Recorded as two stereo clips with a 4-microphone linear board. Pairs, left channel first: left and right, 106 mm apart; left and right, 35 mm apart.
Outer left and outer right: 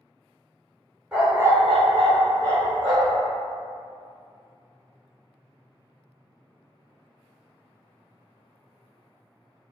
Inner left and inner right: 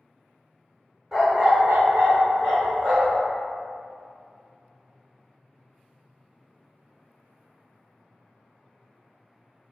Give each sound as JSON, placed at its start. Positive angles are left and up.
{"t": 1.1, "sound": "a dog barking", "side_deg": -10, "distance_m": 1.1}